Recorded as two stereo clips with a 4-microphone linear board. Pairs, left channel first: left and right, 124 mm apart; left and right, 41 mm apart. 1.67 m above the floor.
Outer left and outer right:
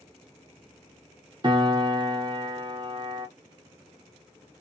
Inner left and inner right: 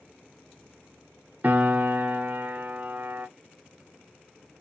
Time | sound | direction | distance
1.4 | a piano | 40° right (ahead or behind) | 0.8 m